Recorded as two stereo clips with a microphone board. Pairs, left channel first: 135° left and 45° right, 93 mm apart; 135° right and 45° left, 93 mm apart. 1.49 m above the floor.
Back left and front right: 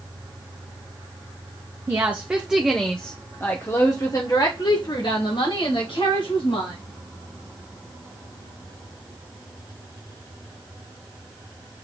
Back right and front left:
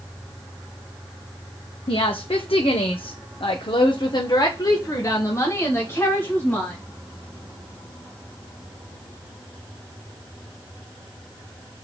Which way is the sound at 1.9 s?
110° right.